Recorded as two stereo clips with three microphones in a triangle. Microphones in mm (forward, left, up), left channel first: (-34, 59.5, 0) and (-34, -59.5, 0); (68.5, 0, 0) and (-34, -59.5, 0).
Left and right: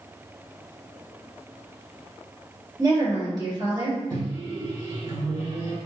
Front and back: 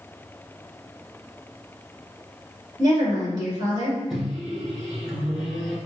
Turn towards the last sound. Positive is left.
turn(degrees=-65)